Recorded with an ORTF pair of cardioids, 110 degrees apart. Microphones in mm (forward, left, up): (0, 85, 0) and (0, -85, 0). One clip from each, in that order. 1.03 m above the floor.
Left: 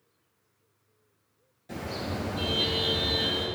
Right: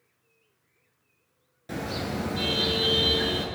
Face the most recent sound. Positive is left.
turn(degrees=-45)